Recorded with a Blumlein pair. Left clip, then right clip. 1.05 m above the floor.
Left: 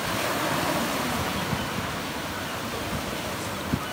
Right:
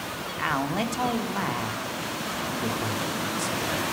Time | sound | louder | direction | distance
0.4 | a man speaking | left 1 dB | 50° right | 1.0 m